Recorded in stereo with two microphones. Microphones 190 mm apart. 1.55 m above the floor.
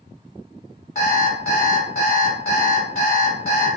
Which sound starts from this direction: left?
An alarm clock, at 0.9 s.